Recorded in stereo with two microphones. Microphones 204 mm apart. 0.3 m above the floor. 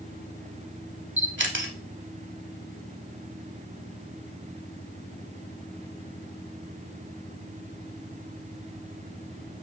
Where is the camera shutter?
65° right (ahead or behind), 0.6 m.